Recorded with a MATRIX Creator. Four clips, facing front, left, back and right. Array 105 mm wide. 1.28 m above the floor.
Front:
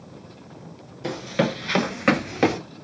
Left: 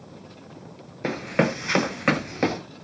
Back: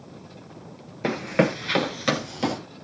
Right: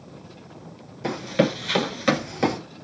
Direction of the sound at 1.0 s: 145° left.